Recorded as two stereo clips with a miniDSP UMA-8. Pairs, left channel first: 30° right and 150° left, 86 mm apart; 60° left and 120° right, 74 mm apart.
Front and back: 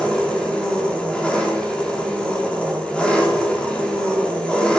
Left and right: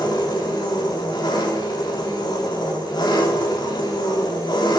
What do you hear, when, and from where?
0.0 s an engine running: 50° left, 3 m